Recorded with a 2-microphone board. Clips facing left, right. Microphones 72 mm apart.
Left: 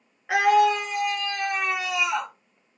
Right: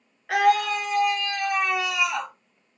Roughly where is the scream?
Centre.